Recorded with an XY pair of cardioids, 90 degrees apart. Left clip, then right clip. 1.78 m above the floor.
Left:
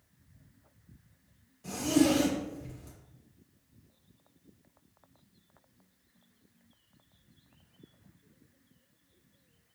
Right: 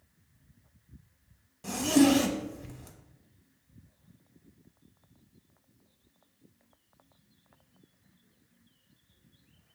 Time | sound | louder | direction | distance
1.6 | a zipper | right 3 dB | 70° right | 0.8 m